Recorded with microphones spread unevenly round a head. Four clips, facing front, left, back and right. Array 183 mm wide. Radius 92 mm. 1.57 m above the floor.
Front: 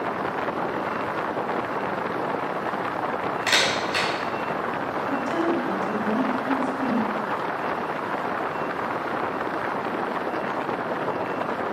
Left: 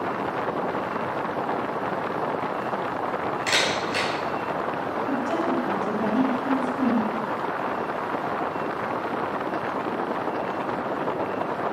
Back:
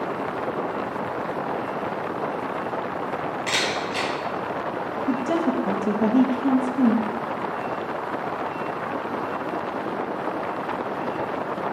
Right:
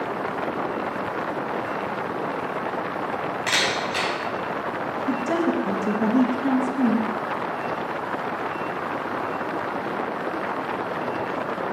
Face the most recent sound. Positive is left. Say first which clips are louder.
# right 3 dB, back 2 dB
turn(degrees=-145)